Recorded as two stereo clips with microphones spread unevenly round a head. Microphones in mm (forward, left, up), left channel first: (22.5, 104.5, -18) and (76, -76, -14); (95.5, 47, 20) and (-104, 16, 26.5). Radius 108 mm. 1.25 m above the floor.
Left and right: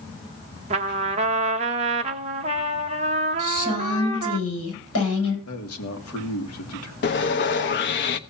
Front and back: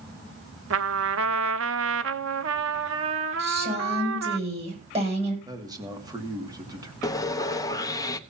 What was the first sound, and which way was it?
A trumpet, 135° right.